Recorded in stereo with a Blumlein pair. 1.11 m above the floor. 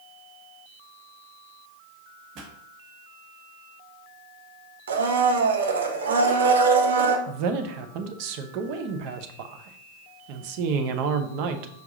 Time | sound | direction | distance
2.4 | a pop | 35° right | 1.4 m
4.9 | a blender | 65° right | 0.8 m
7.3 | a man speaking | 45° right | 0.8 m